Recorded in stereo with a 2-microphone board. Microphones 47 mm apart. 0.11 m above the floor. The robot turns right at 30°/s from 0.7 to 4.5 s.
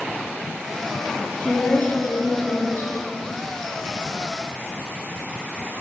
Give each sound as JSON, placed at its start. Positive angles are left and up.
{"t": 1.4, "sound": "a woman speaking", "azimuth_deg": 30, "distance_m": 5.5}